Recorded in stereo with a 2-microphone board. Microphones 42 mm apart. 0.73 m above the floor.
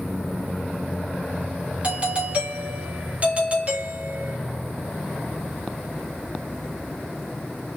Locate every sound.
1.8 s a doorbell: 35° right (ahead or behind), 1.0 m